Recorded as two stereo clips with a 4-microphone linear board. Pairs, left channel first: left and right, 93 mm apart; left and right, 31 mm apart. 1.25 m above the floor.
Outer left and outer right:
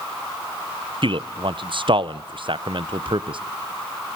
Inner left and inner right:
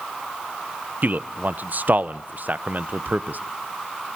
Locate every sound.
1.0 s a man speaking: 65° right (ahead or behind), 0.7 m